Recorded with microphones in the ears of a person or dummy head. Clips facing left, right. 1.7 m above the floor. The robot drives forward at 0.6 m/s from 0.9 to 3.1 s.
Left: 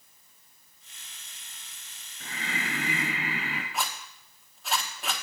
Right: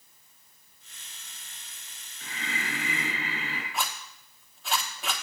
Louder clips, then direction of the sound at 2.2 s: Left 1 dB; 45° left (ahead or behind).